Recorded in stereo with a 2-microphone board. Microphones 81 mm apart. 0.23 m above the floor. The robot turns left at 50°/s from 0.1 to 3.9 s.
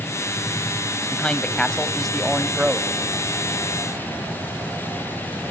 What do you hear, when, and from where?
1.1 s a man speaking: 15° left (ahead or behind), 0.9 m; by 2.9 s 10° right (ahead or behind), 0.9 m